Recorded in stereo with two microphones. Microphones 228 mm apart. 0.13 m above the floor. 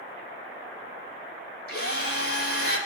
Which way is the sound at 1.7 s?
75° left (ahead or behind).